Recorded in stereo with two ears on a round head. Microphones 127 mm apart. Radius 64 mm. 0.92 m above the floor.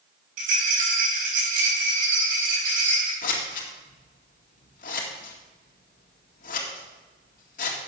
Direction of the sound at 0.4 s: 65° right (ahead or behind).